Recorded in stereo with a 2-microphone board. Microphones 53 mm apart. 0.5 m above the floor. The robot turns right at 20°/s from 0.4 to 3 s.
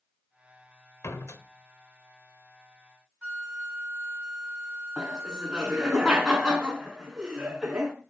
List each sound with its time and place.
1.0 s a door slam: 70° left (ahead or behind), 1.2 m; by 1.4 s 65° left (ahead or behind), 1.2 m
3.2 s a flute: 20° right (ahead or behind), 1.6 m
5.0 s laughter: 10° right (ahead or behind), 4.5 m